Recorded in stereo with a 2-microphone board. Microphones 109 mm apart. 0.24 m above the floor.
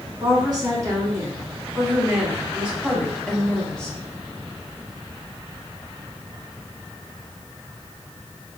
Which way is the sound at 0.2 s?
45° right (ahead or behind).